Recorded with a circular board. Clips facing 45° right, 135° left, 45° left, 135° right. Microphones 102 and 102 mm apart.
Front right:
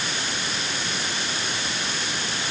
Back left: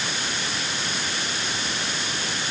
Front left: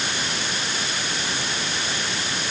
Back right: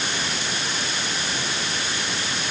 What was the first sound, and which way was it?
Only background noise.